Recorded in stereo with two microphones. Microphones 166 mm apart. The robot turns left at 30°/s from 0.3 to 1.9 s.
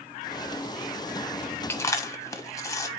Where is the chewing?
15° left (ahead or behind), 0.8 m; by 2.9 s 20° left (ahead or behind), 0.8 m.